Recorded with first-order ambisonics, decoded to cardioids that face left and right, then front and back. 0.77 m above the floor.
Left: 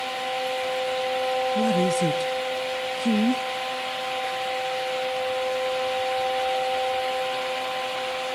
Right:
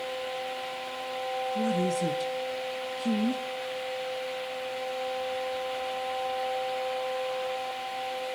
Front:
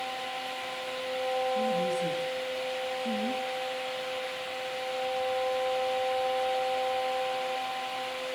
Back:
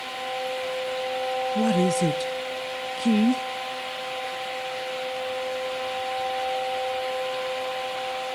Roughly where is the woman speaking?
Behind left.